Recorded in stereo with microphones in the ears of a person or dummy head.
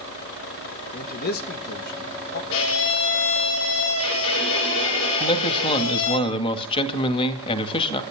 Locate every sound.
0.9 s a man speaking: 50° left (ahead or behind), 2 m
2.5 s a violin: 75° left (ahead or behind), 5 m
5.2 s a man speaking: 25° left (ahead or behind), 2.5 m